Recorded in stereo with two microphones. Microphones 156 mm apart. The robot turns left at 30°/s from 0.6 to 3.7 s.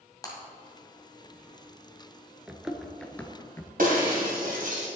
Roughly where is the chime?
I don't hear a chime.